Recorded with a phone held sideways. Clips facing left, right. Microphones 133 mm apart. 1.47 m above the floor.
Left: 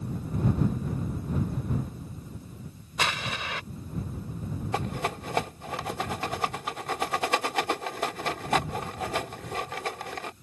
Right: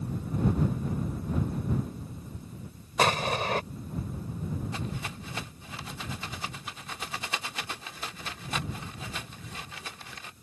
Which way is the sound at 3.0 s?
45° right (ahead or behind).